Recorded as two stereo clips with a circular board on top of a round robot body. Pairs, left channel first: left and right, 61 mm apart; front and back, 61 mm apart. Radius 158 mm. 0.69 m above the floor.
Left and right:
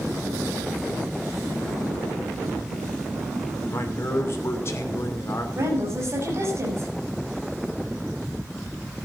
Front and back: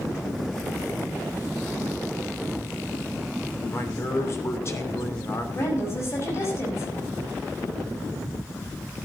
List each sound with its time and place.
3.7 s a man speaking: 45° left, 3 m
5.5 s a woman speaking: 45° right, 6 m